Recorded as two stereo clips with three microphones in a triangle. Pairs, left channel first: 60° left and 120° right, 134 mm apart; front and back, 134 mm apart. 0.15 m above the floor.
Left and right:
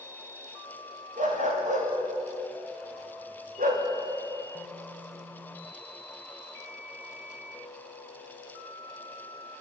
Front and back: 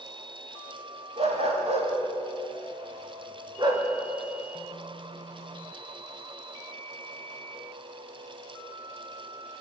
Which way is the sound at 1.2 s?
140° right.